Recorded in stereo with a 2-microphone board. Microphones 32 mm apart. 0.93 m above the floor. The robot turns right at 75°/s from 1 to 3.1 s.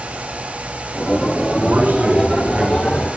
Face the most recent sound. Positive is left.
turn(degrees=0)